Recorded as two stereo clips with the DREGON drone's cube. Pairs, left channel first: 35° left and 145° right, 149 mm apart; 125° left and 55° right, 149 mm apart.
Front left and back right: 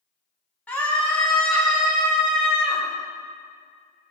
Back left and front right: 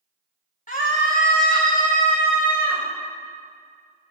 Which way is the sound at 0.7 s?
115° left.